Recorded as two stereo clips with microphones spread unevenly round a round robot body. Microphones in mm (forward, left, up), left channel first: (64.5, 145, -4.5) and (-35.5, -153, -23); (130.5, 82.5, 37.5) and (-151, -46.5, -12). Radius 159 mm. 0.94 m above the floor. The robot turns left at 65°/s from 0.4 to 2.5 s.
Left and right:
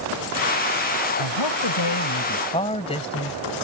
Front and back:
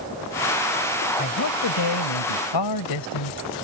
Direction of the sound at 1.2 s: 85° left.